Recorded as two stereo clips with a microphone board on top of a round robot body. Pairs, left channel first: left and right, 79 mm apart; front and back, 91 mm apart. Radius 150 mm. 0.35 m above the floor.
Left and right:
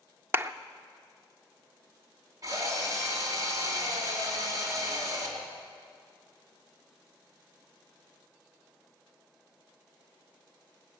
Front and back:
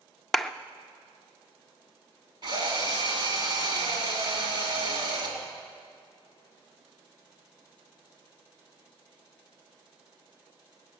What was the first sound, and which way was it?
A clap, 85° right.